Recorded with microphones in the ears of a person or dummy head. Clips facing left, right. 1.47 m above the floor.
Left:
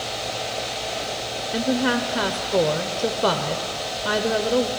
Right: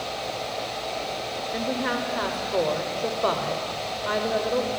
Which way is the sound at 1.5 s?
45° left (ahead or behind).